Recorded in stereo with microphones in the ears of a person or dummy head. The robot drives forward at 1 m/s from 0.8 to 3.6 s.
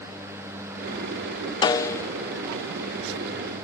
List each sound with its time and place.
1.6 s a snare drum: 25° left (ahead or behind); by 2.1 s 15° left (ahead or behind)